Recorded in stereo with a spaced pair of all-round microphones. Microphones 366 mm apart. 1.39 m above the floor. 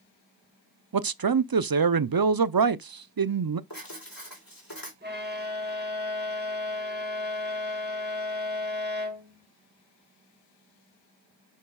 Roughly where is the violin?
Right.